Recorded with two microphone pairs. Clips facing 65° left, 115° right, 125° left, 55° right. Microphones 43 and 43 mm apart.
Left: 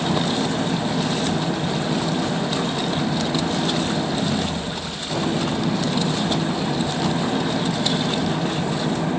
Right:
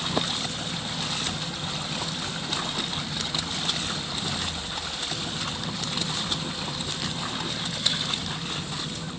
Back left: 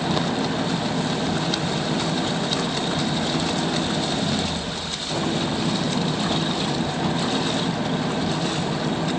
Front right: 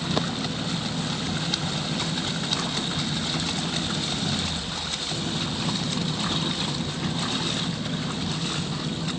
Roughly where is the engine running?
Left.